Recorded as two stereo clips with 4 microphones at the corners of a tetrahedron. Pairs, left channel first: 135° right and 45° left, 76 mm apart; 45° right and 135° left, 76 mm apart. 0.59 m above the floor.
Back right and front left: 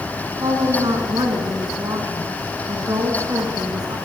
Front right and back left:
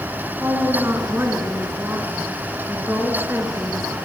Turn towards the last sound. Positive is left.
turn(degrees=75)